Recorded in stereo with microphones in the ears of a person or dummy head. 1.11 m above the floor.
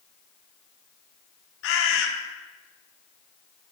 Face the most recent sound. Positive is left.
turn(degrees=70)  # may be behind; listen again after turning